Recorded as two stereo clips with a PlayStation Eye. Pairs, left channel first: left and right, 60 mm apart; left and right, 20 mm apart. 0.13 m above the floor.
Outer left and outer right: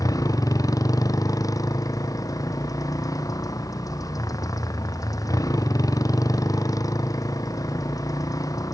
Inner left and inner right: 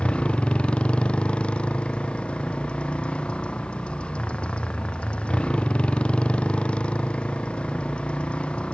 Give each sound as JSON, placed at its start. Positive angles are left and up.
{"t": 0.0, "sound": "a motorcycle", "side_deg": 70}